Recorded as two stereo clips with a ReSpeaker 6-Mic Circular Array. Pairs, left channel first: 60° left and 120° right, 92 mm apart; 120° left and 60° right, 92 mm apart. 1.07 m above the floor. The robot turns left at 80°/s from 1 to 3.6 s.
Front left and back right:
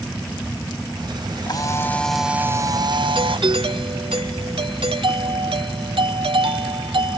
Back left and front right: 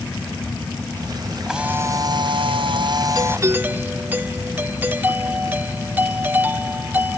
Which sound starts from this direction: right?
A doorbell, at 3.1 s.